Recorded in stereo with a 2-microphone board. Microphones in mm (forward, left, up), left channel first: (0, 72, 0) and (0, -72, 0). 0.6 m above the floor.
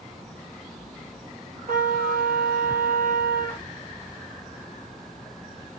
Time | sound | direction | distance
1.7 | a trumpet | 80° right | 3.5 m